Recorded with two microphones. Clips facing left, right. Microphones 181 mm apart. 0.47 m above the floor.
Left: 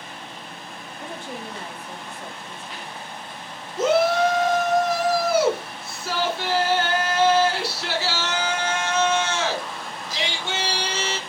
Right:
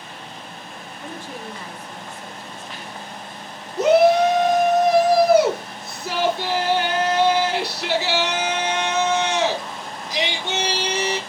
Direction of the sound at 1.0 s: 55° left (ahead or behind).